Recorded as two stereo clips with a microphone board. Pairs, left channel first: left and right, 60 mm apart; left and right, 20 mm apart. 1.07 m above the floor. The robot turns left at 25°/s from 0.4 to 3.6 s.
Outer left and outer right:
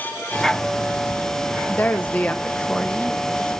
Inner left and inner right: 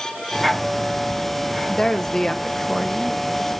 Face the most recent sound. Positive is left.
turn(degrees=0)